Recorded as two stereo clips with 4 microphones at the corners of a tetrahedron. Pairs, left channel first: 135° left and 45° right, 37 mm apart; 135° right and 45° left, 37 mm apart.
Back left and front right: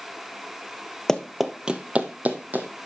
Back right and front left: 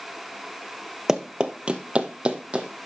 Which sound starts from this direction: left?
Running footsteps, at 1.1 s.